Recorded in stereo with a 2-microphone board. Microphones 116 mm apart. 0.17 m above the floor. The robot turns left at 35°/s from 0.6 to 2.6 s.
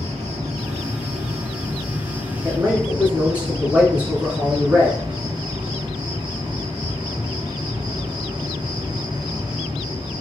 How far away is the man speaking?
About 2 m.